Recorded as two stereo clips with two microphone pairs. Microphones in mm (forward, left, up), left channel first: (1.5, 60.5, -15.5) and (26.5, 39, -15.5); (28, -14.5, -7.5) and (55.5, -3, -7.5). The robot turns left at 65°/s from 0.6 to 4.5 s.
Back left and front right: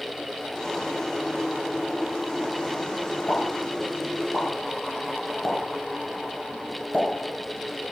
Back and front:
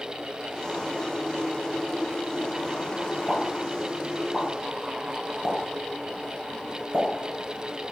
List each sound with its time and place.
3.3 s a pop: 130° left, 0.9 m; by 7.9 s 50° left, 0.9 m